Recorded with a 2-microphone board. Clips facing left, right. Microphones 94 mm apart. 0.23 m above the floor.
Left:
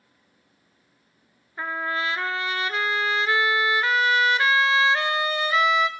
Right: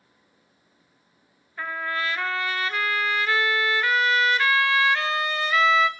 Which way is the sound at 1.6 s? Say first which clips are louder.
Left 1 dB; 20° left (ahead or behind).